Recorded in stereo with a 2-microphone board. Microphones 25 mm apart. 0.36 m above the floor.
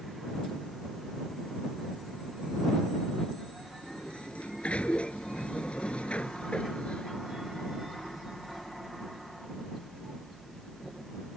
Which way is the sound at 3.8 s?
60° left (ahead or behind).